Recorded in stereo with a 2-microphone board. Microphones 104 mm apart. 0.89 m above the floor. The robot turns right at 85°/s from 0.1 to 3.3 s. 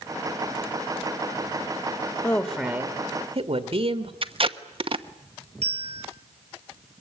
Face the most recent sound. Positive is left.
turn(degrees=-70)  # may be behind; listen again after turning